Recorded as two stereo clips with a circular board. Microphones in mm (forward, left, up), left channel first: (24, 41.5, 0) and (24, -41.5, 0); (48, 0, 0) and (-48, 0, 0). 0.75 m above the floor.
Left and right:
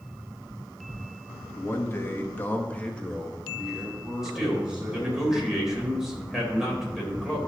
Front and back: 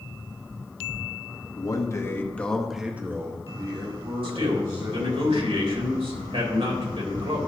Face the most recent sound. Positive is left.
turn(degrees=-175)